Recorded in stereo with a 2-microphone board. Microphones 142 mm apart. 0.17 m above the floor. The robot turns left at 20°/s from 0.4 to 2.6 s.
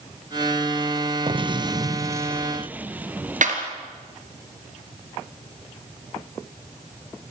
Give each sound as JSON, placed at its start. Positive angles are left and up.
{"t": 1.3, "sound": "an explosion", "side_deg": -40, "distance_m": 0.9}
{"t": 3.4, "sound": "a clap", "side_deg": -60, "distance_m": 3.0}